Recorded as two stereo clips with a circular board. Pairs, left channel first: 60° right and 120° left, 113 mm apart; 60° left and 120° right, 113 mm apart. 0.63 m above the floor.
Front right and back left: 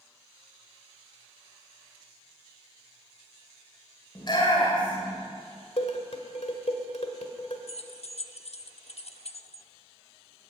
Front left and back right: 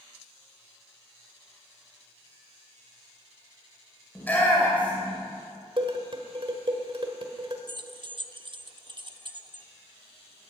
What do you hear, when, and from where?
4.2 s a shout: 15° right, 2.5 m
5.8 s dishes clattering: 80° right, 1.5 m
7.7 s keys jangling: 75° right, 0.6 m